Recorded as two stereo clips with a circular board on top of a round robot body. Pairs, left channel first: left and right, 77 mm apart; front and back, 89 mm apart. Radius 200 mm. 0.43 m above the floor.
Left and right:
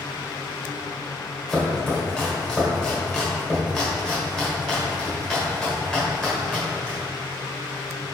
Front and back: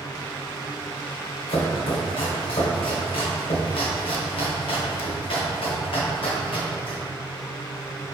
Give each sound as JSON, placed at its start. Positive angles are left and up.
{"t": 1.5, "sound": "chopping", "azimuth_deg": 5, "distance_m": 1.2}